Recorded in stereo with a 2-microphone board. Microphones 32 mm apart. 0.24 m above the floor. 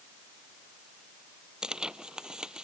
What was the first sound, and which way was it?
Tearing paper, 20° right (ahead or behind).